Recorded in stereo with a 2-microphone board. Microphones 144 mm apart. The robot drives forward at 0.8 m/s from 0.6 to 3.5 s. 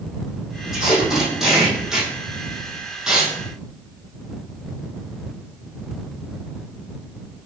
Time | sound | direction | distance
0.7 | tape being pulled | 5° right (ahead or behind) | 8 m